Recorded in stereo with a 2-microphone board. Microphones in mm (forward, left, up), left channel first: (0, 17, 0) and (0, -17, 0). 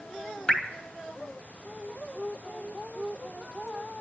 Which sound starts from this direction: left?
Dripping, at 0.5 s.